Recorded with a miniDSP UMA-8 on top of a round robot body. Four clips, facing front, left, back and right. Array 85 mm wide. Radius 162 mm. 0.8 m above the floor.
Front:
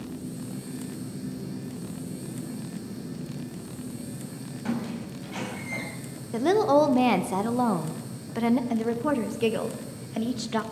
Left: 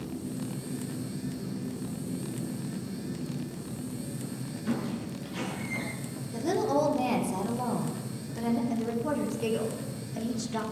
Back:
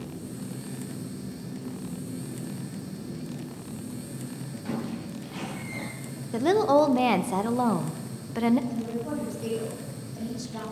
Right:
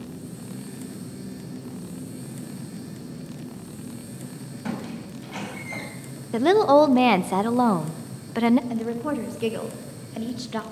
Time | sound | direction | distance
4.7 | a squeak | 65° right | 5 m
6.3 | a woman speaking | 90° right | 1.0 m
8.7 | a woman speaking | 25° right | 1.9 m